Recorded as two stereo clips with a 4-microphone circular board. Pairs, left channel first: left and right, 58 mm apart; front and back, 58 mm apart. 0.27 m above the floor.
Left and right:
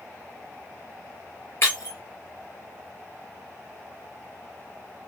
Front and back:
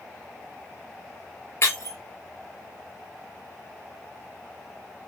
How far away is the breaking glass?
About 7 m.